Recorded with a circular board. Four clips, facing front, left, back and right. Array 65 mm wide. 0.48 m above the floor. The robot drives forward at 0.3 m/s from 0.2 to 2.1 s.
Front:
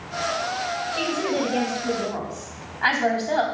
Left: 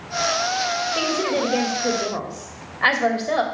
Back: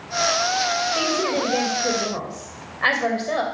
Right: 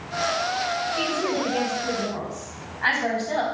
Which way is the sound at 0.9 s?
105° left.